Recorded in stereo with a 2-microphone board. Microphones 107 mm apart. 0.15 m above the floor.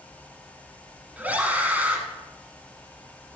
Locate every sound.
1.2 s a scream: 15° right (ahead or behind), 1.2 m